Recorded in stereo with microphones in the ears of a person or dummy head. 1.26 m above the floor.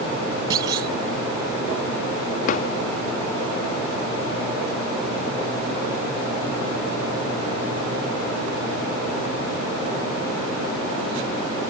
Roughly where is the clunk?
Right.